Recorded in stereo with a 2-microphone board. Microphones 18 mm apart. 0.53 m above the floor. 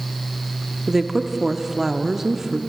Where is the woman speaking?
25° right (ahead or behind), 0.7 m.